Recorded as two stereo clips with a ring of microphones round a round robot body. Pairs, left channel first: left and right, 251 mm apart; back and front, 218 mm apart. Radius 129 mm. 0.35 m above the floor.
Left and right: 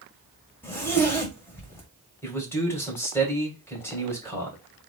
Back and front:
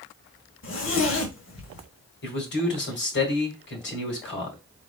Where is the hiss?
No hiss in this recording.